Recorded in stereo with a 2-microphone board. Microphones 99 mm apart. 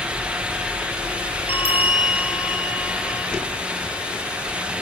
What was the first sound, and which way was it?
A bell, 75° left (ahead or behind).